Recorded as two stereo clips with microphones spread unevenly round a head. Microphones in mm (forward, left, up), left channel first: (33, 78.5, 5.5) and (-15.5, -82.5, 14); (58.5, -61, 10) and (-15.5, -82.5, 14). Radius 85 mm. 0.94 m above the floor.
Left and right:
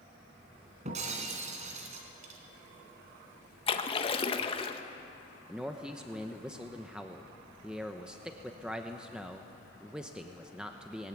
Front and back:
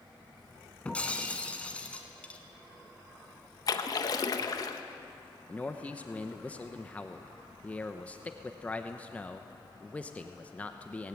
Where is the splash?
25° left, 1.1 m.